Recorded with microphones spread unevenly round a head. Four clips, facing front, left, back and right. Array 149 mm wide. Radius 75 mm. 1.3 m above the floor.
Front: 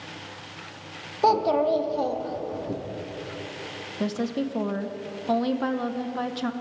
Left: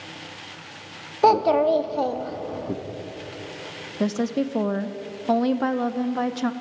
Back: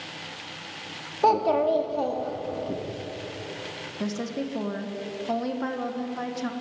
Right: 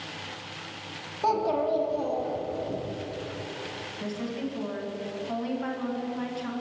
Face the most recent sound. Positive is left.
turn(degrees=80)